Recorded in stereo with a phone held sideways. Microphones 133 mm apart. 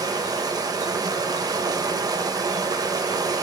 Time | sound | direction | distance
0.0 | running water | 25° right (ahead or behind) | 0.8 m